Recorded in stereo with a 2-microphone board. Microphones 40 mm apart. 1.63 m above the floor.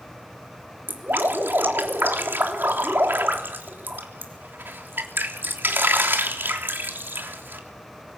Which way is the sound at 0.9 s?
60° right (ahead or behind).